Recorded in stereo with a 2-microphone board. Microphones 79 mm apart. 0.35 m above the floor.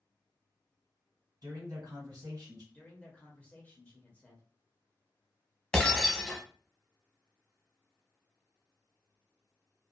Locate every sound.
1.4 s a man speaking: 55° right (ahead or behind), 1.9 m
2.7 s a man speaking: 20° left (ahead or behind), 0.8 m
5.7 s breaking glass: 5° left (ahead or behind), 0.8 m